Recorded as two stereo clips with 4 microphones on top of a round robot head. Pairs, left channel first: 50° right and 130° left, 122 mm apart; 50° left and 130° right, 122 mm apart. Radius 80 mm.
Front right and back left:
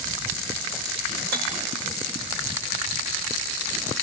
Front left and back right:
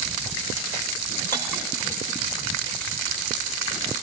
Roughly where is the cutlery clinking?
Behind left.